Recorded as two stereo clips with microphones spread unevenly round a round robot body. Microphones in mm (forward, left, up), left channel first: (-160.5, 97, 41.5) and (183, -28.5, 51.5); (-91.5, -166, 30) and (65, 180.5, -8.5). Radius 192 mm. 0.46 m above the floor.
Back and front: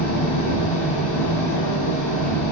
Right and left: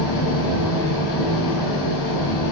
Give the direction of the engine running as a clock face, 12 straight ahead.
5 o'clock.